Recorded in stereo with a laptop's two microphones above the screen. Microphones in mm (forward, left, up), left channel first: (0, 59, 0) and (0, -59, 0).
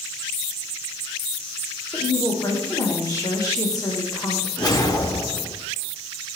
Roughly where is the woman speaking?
Left.